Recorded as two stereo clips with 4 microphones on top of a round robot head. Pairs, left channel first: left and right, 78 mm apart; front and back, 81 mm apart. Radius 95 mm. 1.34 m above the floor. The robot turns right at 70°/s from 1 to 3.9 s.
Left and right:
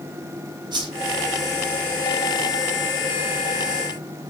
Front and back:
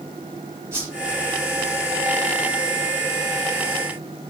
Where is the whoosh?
120° right, 4.5 m.